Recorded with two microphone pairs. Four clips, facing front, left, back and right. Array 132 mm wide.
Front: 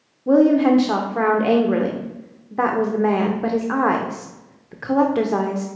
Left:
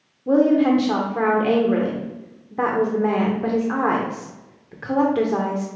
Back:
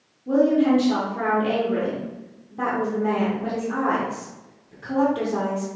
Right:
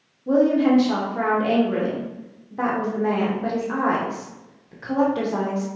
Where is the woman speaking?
15° left, 0.7 m.